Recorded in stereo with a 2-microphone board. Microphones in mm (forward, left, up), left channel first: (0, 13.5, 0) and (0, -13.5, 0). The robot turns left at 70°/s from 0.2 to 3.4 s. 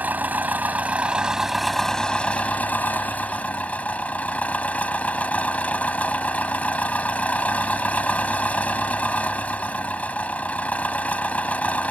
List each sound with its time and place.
0.0 s an engine running: 80° right; by 11.9 s 55° left